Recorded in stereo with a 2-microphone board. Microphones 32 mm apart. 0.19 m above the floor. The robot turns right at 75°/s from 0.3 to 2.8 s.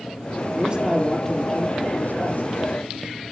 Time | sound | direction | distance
0.6 | a man speaking | 35° right | 4.5 m